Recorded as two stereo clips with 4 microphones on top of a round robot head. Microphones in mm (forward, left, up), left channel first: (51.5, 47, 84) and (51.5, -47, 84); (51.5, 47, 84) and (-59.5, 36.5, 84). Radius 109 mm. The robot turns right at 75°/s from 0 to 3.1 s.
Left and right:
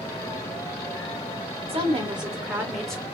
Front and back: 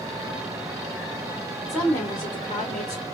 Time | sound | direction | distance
1.7 | a woman speaking | 85° right | 1.6 m